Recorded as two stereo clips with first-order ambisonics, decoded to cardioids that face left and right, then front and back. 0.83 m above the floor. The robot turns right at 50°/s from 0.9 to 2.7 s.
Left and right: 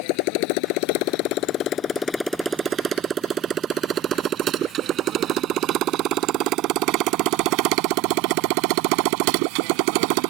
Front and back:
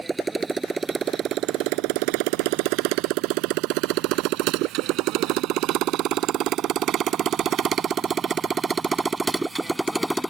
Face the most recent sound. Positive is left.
turn(degrees=-90)